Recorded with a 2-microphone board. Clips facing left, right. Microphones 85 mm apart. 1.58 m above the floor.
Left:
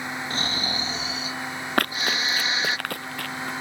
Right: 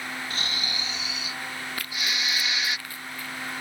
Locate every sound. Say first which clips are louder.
0.3 s snoring: left 4 dB; 35° left (ahead or behind)
1.8 s running footsteps: left 10 dB; 60° left (ahead or behind); by 3.5 s 65° left (ahead or behind)